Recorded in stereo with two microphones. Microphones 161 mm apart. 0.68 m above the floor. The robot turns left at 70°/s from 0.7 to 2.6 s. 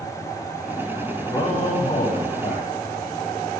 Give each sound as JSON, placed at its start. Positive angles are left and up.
{"t": 1.3, "sound": "a man speaking", "azimuth_deg": 160, "distance_m": 4.5}